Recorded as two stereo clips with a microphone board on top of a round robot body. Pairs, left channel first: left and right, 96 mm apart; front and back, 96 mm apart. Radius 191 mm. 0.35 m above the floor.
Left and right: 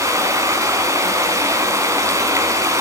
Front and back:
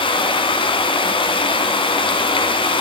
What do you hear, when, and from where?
0.0 s running water: 30° right, 1.9 m